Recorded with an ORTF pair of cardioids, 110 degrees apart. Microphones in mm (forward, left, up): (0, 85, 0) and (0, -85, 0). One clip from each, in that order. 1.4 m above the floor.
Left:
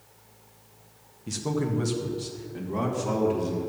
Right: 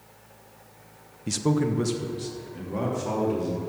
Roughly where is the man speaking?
Ahead right.